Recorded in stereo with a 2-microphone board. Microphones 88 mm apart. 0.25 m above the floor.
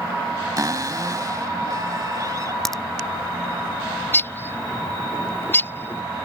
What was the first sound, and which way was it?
A cupboard door, 45° right (ahead or behind).